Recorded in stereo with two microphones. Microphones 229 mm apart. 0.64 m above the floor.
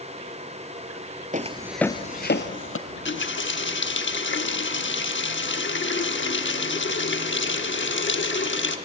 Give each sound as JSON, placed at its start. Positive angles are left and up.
{"t": 1.3, "sound": "footsteps", "side_deg": -35, "distance_m": 0.9}
{"t": 2.9, "sound": "a running tap", "side_deg": 55, "distance_m": 0.9}